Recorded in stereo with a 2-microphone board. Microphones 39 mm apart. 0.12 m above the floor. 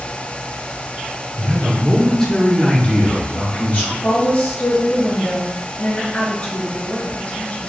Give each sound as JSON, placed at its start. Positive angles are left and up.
{"t": 1.4, "sound": "a man speaking", "side_deg": -10, "distance_m": 1.1}
{"t": 4.0, "sound": "a woman speaking", "side_deg": 40, "distance_m": 1.3}